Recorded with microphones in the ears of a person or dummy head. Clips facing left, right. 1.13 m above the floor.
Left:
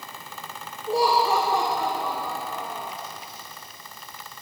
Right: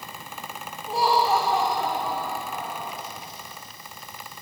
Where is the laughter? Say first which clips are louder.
Left 1 dB; 75° left (ahead or behind), 3.5 m.